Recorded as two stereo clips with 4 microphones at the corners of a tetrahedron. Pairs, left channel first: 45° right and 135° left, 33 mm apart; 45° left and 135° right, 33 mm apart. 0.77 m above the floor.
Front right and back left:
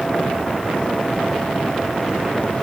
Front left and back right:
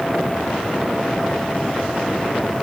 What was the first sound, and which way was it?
Only background noise.